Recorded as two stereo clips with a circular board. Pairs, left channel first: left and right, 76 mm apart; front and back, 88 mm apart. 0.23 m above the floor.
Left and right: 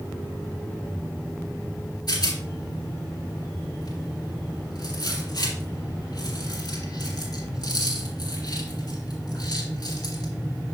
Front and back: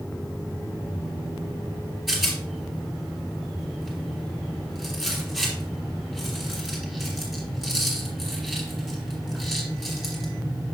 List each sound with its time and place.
2.1 s a rattle: 85° left, 3 m